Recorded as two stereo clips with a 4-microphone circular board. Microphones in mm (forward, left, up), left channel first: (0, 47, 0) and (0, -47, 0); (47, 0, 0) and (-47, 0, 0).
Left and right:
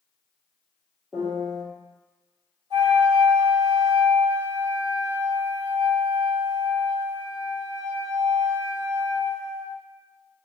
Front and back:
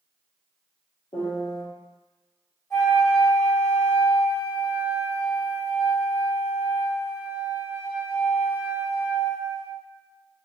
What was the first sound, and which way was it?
A piano, 5° right.